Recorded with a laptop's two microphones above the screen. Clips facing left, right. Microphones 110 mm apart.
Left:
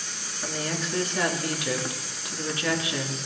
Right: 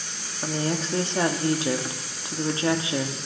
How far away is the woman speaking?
About 1.8 m.